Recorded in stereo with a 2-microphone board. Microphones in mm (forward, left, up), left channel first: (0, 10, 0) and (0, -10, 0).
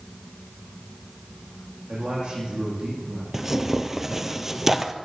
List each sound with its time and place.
1.9 s a man speaking: 70° right (ahead or behind), 8.5 m
3.3 s tearing paper: 20° right (ahead or behind), 0.9 m